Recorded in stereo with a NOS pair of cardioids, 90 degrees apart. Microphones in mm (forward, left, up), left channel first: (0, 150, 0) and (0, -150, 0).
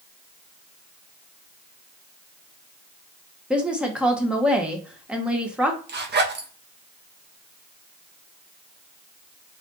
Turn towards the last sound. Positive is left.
turn(degrees=-35)